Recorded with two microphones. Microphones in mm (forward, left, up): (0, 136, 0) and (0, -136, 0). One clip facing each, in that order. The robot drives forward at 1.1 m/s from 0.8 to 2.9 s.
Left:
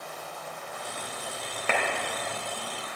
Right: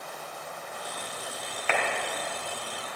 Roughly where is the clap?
Left.